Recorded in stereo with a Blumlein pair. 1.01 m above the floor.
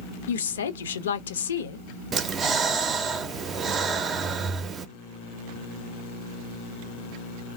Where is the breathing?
20° right, 0.6 m.